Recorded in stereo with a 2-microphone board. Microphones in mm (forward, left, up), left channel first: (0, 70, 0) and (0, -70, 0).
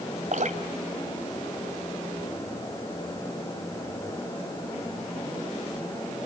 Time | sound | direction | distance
0.3 | dripping | 65° right (ahead or behind) | 1.9 m